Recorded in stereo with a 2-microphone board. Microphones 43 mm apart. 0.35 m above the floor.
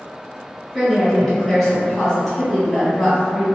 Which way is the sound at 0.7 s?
5° right (ahead or behind).